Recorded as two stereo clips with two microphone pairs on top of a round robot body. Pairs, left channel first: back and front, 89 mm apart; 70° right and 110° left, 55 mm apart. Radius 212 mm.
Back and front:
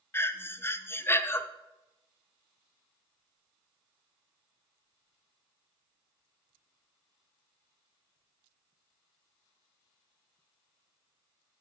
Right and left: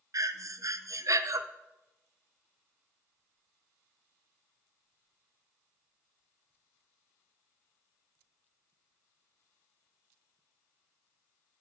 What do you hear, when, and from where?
0.1 s breathing: 120° left, 0.6 m